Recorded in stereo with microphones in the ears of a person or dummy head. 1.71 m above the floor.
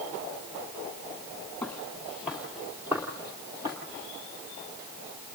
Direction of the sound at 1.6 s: 5° left (ahead or behind).